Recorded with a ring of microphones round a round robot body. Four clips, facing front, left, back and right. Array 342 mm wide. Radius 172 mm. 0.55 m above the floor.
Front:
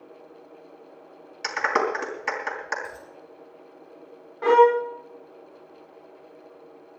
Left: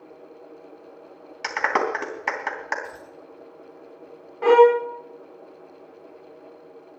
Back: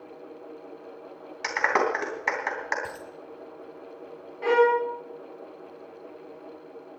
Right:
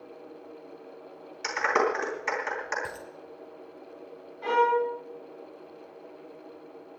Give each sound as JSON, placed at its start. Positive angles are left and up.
{"t": 1.4, "sound": "a clap", "azimuth_deg": 110, "distance_m": 3.5}
{"t": 2.8, "sound": "a dropped coin", "azimuth_deg": -130, "distance_m": 6.0}
{"t": 4.4, "sound": "a violin", "azimuth_deg": 70, "distance_m": 0.7}